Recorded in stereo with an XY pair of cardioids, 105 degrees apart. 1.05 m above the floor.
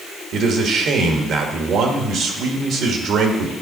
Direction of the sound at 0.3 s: 70° right.